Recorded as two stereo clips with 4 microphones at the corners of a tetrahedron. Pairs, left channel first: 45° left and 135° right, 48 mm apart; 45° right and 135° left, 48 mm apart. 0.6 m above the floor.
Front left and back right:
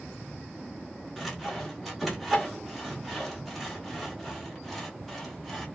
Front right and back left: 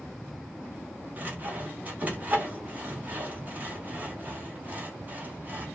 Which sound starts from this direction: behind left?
Sawing, at 1.2 s.